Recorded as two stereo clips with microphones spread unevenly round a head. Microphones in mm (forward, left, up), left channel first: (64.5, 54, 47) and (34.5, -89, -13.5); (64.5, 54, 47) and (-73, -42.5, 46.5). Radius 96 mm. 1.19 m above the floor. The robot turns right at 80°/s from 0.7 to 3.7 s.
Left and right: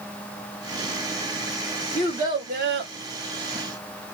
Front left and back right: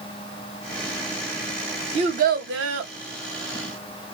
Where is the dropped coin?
I don't hear a dropped coin.